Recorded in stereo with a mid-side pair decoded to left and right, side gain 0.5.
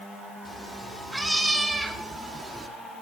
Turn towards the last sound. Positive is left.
turn(degrees=-30)